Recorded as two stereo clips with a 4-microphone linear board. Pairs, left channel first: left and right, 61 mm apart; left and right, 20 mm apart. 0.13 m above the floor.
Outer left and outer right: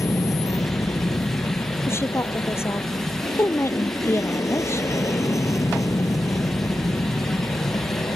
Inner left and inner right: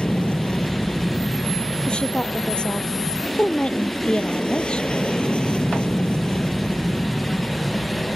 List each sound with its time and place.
0.0 s an aircraft: 60° left (ahead or behind)
1.9 s a woman speaking: 50° left (ahead or behind)